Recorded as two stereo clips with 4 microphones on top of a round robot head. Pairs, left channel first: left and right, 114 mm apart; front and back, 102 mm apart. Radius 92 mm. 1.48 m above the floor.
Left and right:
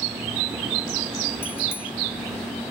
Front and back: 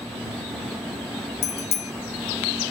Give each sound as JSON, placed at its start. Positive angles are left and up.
{"t": 1.4, "sound": "a bicycle bell", "azimuth_deg": 15}